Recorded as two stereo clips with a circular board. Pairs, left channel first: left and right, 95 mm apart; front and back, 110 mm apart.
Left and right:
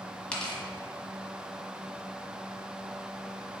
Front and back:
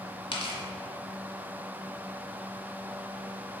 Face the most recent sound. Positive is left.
turn(degrees=15)